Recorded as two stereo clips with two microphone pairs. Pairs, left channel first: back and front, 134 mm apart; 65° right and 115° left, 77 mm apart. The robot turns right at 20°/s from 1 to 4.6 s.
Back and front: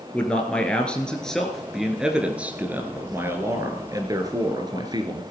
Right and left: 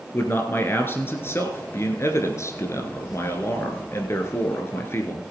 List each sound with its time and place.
0.1 s a man speaking: 105° right, 1.6 m; by 5.2 s 30° right, 1.6 m